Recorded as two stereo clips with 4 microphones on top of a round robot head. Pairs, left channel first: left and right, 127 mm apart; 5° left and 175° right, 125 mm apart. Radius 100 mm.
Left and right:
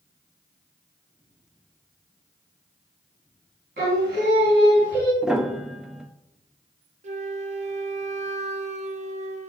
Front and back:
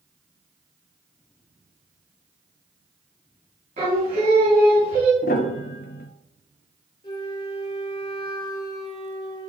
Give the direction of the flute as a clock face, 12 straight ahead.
2 o'clock.